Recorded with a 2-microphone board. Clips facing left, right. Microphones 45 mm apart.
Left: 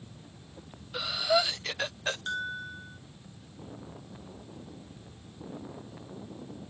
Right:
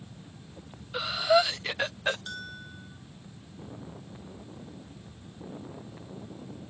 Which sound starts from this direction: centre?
Breathing, at 0.9 s.